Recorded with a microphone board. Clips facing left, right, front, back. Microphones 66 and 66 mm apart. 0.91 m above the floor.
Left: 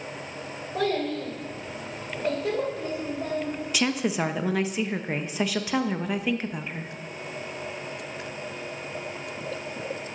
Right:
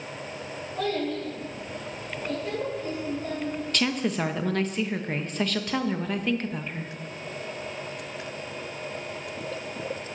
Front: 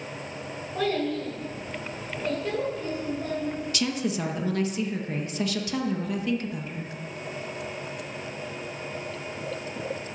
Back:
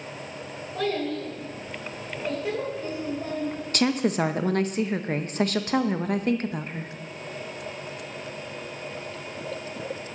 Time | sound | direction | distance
0.8 | a child speaking | 80° left | 3.5 m
3.7 | a woman speaking | 170° left | 0.6 m